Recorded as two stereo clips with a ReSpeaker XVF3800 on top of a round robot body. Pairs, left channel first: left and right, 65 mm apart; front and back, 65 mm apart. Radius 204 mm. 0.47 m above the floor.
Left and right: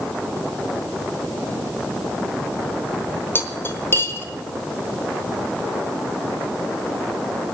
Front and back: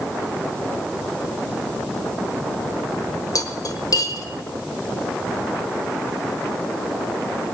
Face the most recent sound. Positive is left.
turn(degrees=35)